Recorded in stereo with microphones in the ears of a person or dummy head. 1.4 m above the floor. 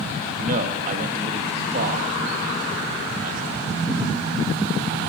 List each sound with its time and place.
0.4 s a man speaking: 45° right (ahead or behind), 2 m